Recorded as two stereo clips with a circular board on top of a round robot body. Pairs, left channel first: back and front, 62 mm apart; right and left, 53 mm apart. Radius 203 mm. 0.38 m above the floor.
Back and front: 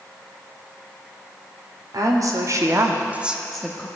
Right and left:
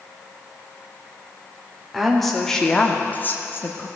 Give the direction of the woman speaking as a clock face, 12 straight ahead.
12 o'clock.